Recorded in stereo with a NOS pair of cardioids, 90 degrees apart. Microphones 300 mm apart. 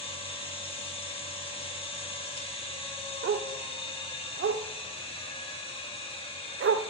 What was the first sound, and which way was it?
A machine running, 20° left.